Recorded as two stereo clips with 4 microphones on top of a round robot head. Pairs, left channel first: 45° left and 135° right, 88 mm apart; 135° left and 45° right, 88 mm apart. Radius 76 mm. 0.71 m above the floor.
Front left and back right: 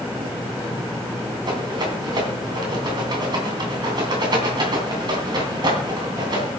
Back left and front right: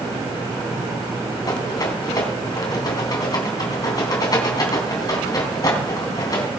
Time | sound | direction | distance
1.5 | a rattle | 175° right | 3 m